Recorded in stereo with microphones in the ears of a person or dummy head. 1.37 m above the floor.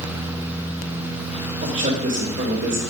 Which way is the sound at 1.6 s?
45° right (ahead or behind).